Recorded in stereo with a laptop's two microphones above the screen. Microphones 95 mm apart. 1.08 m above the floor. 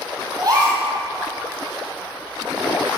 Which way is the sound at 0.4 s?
45° right (ahead or behind).